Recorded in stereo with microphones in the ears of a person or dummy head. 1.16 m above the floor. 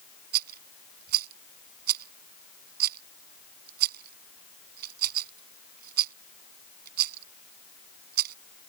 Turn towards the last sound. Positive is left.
turn(degrees=-55)  # may be behind; listen again after turning